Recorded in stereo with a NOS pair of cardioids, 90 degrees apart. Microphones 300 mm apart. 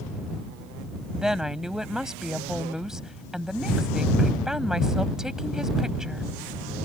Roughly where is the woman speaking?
Ahead.